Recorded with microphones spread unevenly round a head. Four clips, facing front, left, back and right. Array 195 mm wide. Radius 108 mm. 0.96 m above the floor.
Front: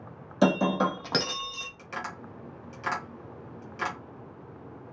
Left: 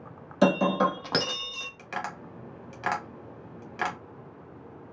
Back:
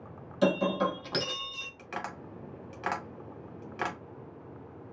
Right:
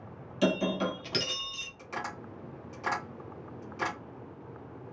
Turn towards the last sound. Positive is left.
turn(degrees=95)